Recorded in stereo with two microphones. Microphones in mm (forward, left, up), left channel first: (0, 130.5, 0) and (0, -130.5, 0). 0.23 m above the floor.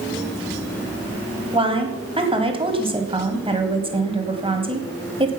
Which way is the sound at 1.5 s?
20° right (ahead or behind).